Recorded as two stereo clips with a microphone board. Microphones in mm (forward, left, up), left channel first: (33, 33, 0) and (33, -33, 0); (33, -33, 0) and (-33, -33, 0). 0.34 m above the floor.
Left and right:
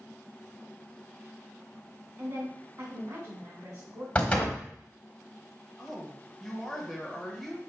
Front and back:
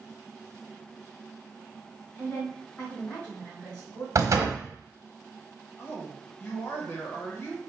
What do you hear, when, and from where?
2.2 s a woman speaking: 60° right, 1.7 m
4.2 s a door slam: 160° left, 1.2 m
5.8 s a woman speaking: 10° left, 1.2 m